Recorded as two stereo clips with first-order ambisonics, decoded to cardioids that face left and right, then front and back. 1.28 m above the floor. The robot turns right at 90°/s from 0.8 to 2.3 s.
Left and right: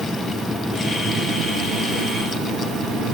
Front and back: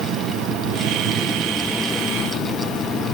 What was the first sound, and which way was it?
An insect, 170° right.